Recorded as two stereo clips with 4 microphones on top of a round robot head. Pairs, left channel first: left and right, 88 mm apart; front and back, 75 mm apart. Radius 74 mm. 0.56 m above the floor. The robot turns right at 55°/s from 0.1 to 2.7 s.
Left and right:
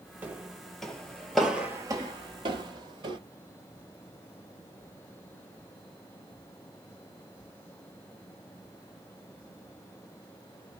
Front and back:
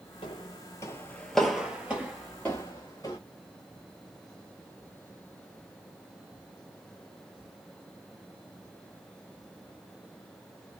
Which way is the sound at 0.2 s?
25° right.